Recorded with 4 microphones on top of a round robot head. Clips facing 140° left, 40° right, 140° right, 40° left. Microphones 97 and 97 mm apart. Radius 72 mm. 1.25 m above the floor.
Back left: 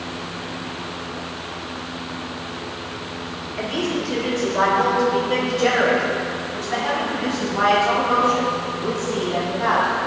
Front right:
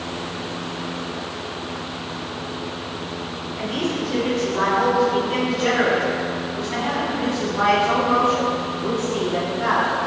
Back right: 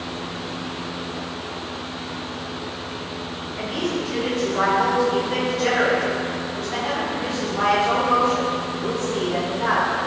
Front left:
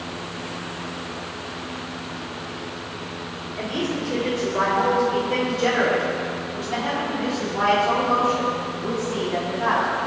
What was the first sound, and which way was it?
A woman speaking, 100° left.